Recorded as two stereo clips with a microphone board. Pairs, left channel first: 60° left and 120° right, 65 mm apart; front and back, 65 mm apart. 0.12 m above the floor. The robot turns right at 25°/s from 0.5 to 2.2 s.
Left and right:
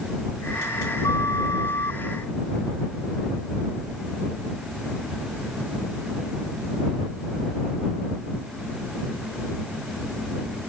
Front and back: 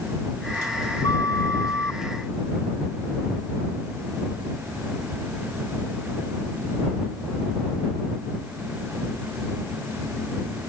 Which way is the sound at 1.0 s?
25° left.